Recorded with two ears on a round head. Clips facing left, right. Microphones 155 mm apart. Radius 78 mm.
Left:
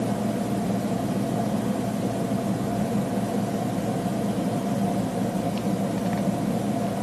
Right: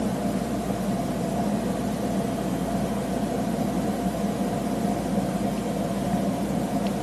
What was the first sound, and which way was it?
Only background noise.